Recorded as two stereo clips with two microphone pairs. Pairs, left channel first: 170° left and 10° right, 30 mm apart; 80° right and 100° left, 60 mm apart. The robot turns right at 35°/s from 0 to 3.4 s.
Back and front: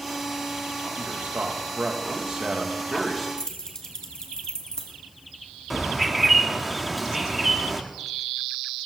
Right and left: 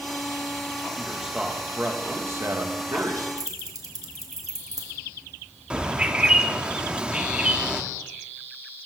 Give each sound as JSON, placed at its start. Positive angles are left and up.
{"t": 1.0, "sound": "a man speaking", "azimuth_deg": 5, "distance_m": 2.5}
{"t": 3.4, "sound": "keys jangling", "azimuth_deg": 100, "distance_m": 2.0}
{"t": 5.7, "sound": "a bird", "azimuth_deg": 60, "distance_m": 1.1}